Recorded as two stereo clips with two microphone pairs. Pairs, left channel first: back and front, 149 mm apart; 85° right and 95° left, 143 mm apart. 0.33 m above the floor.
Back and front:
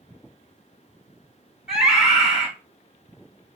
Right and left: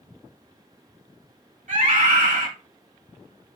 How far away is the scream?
About 2.5 m.